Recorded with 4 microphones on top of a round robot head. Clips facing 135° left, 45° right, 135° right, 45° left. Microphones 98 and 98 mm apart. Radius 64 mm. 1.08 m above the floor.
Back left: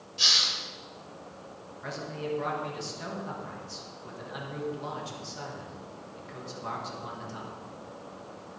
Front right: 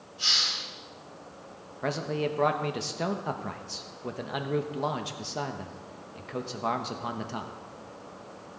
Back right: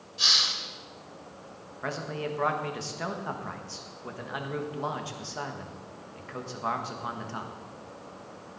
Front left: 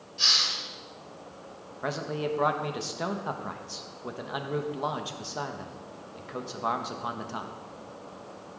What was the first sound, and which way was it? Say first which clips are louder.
A hiss: back left 1 dB, even; 140° left.